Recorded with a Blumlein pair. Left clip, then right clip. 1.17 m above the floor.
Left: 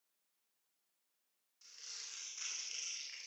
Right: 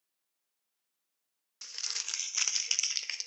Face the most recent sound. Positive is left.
turn(degrees=-50)